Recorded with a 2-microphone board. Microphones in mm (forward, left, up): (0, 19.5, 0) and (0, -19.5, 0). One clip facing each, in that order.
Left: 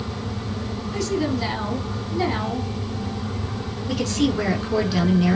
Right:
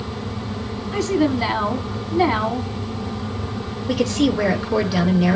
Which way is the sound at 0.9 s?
25° right (ahead or behind).